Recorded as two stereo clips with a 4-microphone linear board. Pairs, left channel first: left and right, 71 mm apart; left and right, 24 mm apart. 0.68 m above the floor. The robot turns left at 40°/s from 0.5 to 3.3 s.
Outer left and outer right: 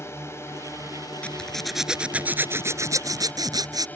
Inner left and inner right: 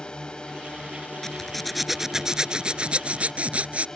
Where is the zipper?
20° left; by 3.9 s 65° right.